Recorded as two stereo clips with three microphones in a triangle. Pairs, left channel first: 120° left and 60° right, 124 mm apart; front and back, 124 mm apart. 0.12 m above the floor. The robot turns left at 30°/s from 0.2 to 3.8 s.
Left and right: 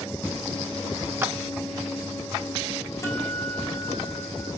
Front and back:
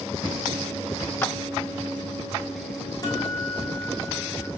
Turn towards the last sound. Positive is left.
turn(degrees=35)